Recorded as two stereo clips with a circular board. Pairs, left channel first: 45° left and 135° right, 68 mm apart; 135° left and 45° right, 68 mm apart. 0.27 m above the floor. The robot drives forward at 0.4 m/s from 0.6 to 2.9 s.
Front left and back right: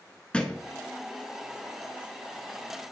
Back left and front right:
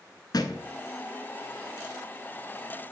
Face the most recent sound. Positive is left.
turn(degrees=155)